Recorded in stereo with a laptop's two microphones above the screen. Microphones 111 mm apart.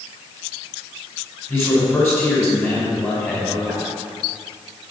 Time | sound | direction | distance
1.5 | a man speaking | 20° left (ahead or behind) | 4.5 m